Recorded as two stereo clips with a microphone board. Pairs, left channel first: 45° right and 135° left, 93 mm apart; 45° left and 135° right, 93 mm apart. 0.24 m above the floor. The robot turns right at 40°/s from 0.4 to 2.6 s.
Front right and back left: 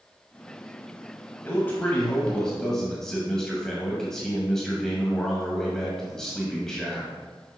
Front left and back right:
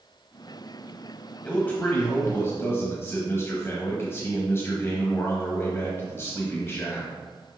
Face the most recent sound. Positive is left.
turn(degrees=30)